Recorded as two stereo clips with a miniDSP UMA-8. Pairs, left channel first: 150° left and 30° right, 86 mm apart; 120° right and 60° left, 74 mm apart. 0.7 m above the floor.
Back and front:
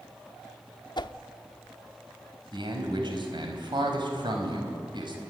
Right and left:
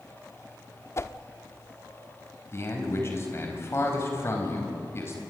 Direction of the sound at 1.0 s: 175° right.